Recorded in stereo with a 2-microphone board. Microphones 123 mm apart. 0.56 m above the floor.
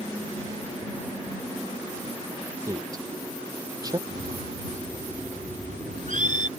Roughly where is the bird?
Right.